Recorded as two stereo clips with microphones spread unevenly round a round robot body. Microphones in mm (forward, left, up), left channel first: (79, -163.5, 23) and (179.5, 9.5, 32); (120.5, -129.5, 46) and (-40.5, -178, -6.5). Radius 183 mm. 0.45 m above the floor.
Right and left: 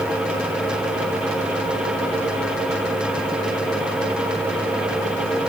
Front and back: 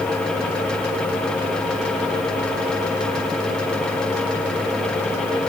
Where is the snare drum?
No snare drum in this recording.